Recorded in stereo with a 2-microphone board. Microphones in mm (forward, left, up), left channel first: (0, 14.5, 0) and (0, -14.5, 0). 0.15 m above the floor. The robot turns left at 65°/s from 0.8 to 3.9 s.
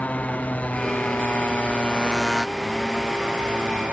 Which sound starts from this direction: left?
A motorcycle, at 0.0 s.